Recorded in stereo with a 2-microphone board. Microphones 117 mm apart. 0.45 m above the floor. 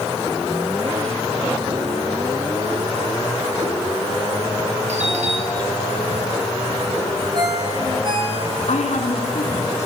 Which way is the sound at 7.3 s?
40° right (ahead or behind).